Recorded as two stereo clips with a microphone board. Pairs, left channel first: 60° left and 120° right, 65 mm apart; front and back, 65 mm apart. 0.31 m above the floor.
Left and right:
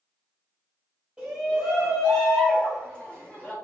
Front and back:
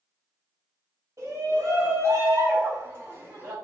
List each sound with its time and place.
1.2 s a shout: 175° left, 2 m; by 3.5 s 125° left, 2 m